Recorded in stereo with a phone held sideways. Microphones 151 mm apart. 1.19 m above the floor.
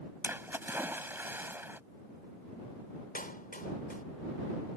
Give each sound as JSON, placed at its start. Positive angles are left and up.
{"t": 0.2, "sound": "a splash", "side_deg": -15}
{"t": 3.1, "sound": "a clap", "side_deg": 65}